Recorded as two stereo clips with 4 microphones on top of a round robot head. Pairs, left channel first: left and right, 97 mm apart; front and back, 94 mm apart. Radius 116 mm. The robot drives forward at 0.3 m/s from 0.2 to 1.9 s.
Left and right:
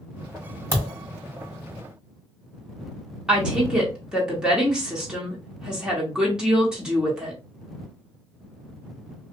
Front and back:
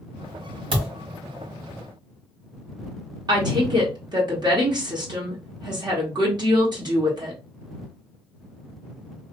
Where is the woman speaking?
170° right, 1.5 m.